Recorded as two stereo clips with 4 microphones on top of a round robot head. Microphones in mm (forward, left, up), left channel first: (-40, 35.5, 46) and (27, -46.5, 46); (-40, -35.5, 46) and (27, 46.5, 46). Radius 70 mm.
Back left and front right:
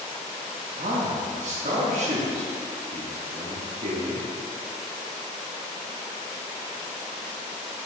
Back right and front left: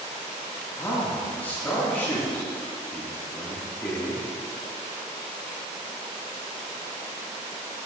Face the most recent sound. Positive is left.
turn(degrees=-55)